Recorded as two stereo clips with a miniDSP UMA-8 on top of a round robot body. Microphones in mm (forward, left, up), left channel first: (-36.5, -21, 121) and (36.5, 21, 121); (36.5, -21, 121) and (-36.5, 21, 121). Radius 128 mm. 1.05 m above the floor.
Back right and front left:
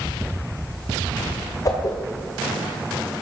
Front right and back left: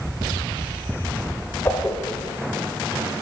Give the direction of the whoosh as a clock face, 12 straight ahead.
3 o'clock.